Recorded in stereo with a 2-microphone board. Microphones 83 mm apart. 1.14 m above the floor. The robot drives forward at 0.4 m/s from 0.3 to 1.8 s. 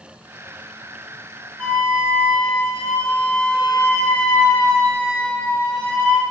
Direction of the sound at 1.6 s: 25° left (ahead or behind).